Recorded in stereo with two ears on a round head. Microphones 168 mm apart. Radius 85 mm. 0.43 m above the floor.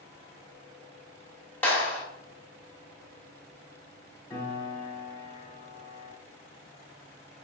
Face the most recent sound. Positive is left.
turn(degrees=15)  # may be behind; listen again after turning